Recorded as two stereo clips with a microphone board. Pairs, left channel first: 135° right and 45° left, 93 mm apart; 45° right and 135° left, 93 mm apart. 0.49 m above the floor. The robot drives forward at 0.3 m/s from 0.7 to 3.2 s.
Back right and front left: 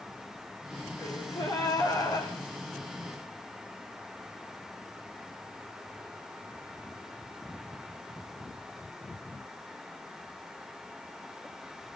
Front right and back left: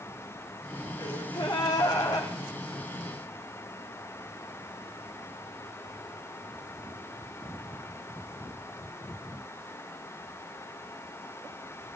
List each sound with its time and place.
1.0 s a gasp: 90° right, 7 m